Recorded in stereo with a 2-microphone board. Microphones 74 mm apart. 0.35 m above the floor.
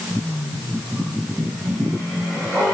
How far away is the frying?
No frying in this recording.